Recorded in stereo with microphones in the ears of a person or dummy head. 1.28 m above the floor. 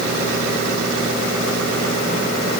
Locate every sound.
Only background noise.